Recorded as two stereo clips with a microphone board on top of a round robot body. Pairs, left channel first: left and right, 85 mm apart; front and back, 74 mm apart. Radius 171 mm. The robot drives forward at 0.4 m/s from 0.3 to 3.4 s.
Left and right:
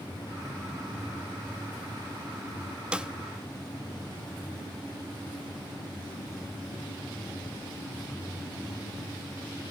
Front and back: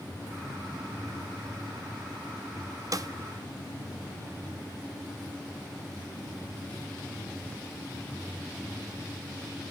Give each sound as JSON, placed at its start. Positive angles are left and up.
{"t": 2.9, "sound": "a snare drum", "azimuth_deg": -165, "distance_m": 0.9}